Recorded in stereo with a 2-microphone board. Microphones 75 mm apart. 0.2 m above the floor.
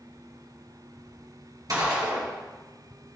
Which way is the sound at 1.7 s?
55° right (ahead or behind).